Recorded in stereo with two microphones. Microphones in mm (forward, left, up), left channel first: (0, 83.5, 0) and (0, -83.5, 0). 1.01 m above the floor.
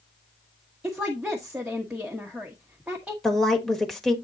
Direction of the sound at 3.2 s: Centre (ahead or behind).